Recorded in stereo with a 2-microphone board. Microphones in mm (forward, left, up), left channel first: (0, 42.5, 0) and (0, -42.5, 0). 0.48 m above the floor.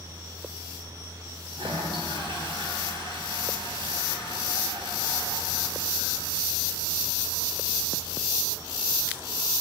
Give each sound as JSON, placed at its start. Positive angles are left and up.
{"t": 1.5, "sound": "a toilet flushing", "side_deg": -70, "distance_m": 3.5}